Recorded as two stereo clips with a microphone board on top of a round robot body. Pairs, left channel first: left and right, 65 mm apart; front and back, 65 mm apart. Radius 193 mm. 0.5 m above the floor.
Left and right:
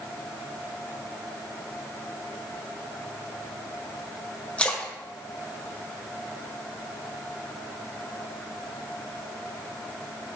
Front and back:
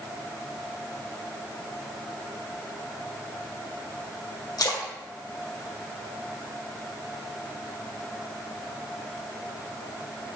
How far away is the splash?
About 1.7 m.